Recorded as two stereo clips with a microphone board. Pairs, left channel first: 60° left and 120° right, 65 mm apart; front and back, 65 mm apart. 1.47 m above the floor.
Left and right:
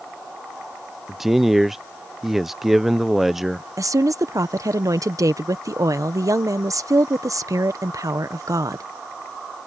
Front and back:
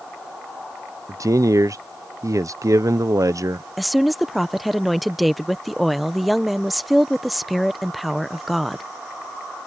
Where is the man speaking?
155° left.